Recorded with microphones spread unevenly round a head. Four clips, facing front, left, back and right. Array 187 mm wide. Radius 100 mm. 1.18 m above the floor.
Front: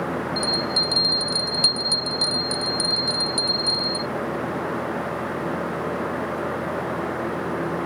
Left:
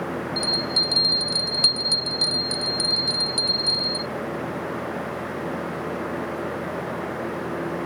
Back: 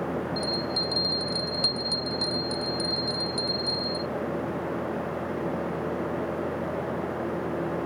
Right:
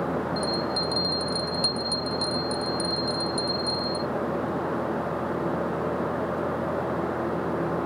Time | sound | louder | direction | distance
0.4 | a bell | right 1 dB, front 4 dB | 60° left | ?